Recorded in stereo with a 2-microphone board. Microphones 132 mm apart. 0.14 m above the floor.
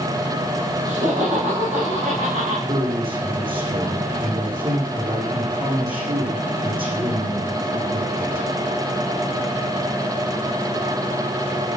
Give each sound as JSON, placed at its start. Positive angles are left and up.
{"t": 0.8, "sound": "laughter", "side_deg": -55, "distance_m": 9.0}
{"t": 2.7, "sound": "a man speaking", "side_deg": -40, "distance_m": 8.0}